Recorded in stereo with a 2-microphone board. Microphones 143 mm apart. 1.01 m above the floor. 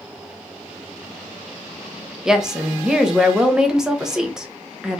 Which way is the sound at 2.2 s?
5° right (ahead or behind).